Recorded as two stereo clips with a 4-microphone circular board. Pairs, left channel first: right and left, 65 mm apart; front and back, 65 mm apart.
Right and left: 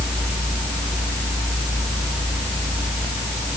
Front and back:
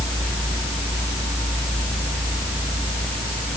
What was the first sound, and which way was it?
Only background noise.